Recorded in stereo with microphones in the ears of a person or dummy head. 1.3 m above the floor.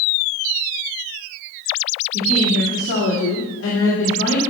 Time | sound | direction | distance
2.1 | a woman speaking | 80° left | 2.5 m